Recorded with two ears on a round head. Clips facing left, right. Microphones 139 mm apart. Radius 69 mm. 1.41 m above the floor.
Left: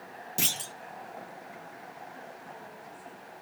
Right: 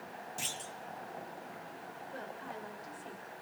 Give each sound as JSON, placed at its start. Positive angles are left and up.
{"t": 0.4, "sound": "a clunk", "side_deg": 75, "distance_m": 0.5}
{"t": 2.1, "sound": "a woman speaking", "side_deg": -80, "distance_m": 5.5}